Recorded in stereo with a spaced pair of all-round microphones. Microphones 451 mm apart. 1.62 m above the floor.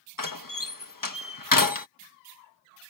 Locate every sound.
0.2 s a door slam: 45° left (ahead or behind)